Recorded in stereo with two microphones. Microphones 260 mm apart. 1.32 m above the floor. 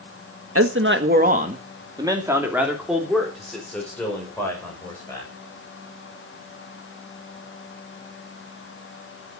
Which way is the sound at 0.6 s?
60° right (ahead or behind).